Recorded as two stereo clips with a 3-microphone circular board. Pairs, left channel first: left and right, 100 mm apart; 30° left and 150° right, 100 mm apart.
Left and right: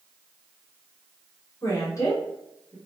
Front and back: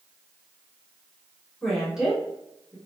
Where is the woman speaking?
115° left, 1.3 m; by 2.8 s 155° left, 1.5 m.